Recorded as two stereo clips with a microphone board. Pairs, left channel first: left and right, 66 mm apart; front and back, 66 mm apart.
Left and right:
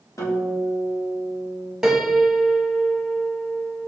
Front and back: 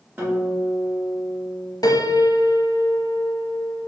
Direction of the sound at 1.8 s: 10° right.